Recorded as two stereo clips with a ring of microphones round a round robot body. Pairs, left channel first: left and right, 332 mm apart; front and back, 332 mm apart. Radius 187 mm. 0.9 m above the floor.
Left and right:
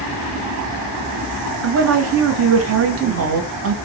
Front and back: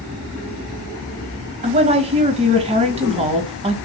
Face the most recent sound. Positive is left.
turn(degrees=-115)